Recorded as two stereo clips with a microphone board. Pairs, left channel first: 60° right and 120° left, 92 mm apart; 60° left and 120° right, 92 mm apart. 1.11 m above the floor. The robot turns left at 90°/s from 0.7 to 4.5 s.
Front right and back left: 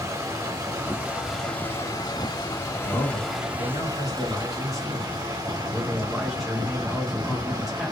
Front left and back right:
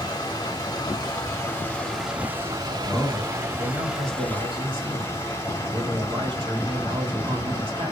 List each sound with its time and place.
0.0 s running water: 85° left, 1.1 m; by 7.9 s 105° left, 1.1 m
2.8 s a man speaking: straight ahead, 1.7 m; by 7.9 s 150° right, 1.7 m